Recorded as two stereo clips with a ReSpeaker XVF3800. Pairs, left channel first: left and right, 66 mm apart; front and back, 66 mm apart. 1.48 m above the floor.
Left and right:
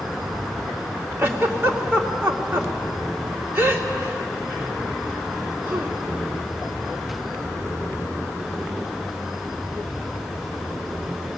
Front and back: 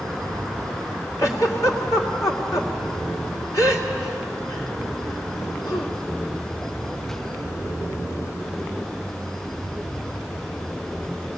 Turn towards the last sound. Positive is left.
turn(degrees=-30)